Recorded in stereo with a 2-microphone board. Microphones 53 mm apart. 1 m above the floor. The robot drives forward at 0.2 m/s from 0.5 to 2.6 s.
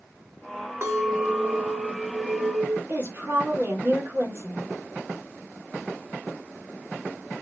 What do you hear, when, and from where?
0.8 s a clink: 60° right (ahead or behind), 1.4 m; by 2.8 s 50° right (ahead or behind), 1.6 m
2.9 s a woman speaking: 45° right (ahead or behind), 1.5 m